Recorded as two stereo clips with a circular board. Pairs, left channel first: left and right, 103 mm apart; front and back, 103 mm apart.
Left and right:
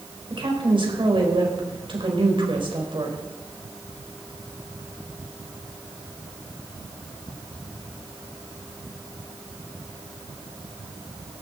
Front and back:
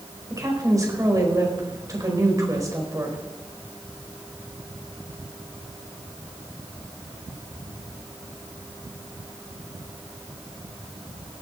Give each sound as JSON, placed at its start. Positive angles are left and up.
{"t": 0.3, "sound": "a woman speaking", "azimuth_deg": -125, "distance_m": 4.5}